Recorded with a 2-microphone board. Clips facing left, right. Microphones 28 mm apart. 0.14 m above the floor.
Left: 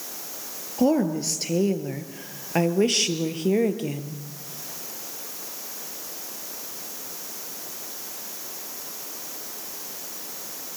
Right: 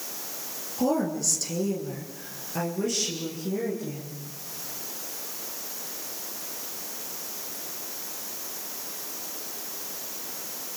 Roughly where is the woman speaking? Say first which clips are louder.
Left 4 dB; left.